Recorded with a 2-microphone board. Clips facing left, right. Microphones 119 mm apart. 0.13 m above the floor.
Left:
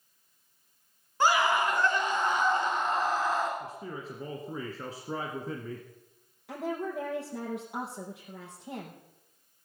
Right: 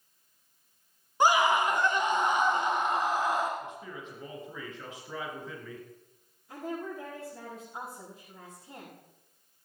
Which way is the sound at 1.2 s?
15° right (ahead or behind).